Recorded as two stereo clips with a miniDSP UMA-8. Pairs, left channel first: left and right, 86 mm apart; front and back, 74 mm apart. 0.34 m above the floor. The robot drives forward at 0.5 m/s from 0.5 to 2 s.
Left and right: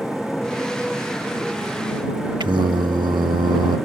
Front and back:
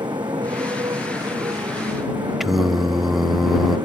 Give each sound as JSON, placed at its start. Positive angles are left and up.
{"t": 0.0, "sound": "a motorcycle", "azimuth_deg": 175}
{"t": 2.4, "sound": "singing", "azimuth_deg": -95}